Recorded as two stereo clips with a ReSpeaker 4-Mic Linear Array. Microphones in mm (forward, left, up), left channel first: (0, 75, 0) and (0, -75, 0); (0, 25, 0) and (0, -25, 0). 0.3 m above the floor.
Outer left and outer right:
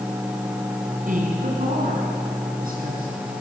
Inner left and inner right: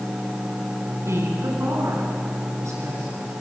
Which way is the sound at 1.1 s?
65° right (ahead or behind).